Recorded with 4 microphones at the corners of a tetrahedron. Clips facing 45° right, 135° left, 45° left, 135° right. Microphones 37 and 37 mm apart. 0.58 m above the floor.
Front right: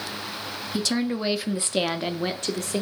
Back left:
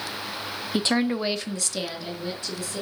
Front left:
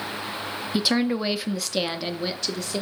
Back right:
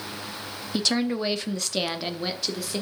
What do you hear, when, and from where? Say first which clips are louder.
0.7 s a woman speaking: back left 2 dB, front left 2 dB; 115° left, 0.7 m; by 2.8 s 50° right, 1.3 m